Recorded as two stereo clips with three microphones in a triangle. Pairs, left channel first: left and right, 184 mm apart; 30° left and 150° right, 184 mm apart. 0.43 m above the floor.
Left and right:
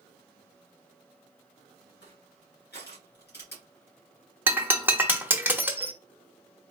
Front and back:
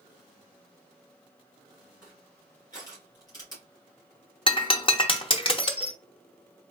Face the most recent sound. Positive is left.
turn(degrees=-15)